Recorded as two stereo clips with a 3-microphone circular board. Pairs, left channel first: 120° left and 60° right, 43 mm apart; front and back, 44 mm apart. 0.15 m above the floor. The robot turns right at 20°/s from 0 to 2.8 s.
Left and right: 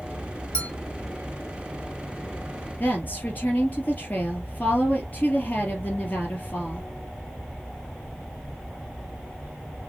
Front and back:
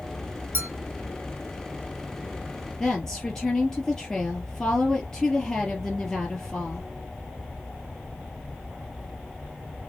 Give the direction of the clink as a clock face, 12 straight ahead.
6 o'clock.